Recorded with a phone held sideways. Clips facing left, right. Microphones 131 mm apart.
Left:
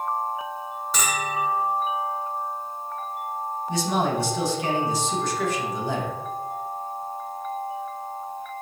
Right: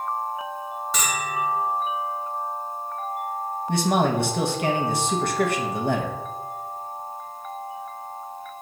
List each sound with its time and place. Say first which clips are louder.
0.9 s a bell: left 1 dB; centre (ahead or behind), 0.8 m
3.7 s a man speaking: right 3 dB; 60° right (ahead or behind), 0.7 m